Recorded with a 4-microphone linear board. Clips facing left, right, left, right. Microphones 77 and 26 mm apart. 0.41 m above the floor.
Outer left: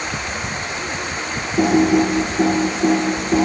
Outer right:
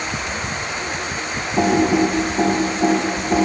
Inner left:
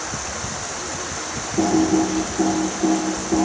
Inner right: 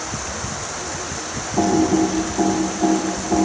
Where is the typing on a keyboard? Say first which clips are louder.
Outer left 1 dB, inner right 1 dB; 50° right (ahead or behind), 1.4 m.